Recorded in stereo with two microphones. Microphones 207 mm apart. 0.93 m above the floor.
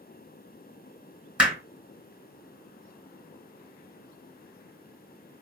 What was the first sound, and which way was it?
Hammering, 5° right (ahead or behind).